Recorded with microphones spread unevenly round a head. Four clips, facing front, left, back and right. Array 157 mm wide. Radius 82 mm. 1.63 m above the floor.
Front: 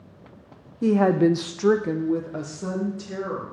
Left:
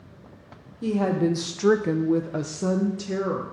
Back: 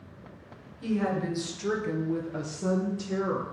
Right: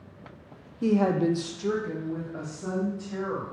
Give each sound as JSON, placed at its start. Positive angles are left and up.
{"t": 0.8, "sound": "a woman speaking", "azimuth_deg": -15, "distance_m": 0.8}